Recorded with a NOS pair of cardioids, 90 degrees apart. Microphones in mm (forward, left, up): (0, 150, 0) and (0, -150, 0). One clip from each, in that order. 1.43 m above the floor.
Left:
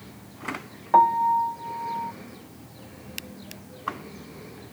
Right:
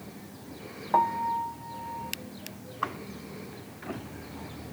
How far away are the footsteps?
I don't hear footsteps.